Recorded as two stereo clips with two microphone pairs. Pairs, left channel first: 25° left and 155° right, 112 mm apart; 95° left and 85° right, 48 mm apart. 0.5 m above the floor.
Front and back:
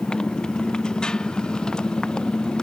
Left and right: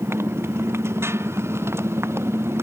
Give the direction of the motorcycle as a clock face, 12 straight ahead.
2 o'clock.